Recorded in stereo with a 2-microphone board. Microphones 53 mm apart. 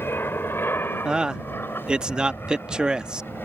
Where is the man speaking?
15° right (ahead or behind).